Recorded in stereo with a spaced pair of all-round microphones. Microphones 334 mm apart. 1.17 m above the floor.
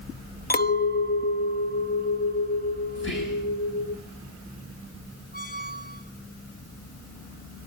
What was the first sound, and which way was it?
A clink, 30° left (ahead or behind).